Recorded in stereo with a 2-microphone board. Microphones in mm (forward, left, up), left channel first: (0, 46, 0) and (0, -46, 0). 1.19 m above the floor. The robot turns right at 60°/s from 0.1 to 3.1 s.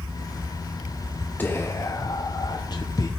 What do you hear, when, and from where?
1.4 s whispering: 25° left, 0.6 m; by 3.1 s 130° left, 0.6 m